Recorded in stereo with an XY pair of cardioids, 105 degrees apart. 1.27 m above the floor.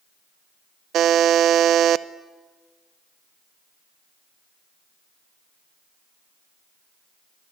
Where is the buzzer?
70° right, 0.6 m.